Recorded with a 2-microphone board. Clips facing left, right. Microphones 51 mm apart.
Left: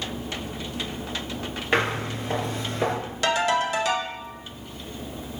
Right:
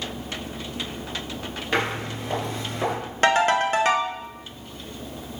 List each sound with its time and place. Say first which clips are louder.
1.7 s footsteps: left 1 dB; 20° left (ahead or behind), 1.7 m; by 3.0 s 5° right (ahead or behind), 1.6 m
3.2 s a ringtone: right 4 dB; 40° right (ahead or behind), 0.6 m